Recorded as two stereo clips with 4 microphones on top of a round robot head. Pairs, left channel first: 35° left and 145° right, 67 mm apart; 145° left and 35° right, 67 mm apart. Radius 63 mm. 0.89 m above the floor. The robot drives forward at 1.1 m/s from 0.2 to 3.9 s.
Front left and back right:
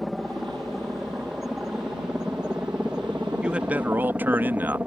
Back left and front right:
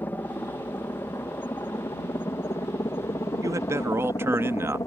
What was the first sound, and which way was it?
A helicopter, 125° left.